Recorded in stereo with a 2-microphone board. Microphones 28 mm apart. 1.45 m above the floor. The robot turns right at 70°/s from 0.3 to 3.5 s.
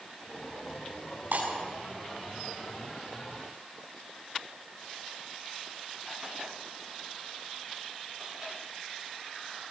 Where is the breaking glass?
75° right (ahead or behind), 7 m; by 1.5 s 85° right, 7 m.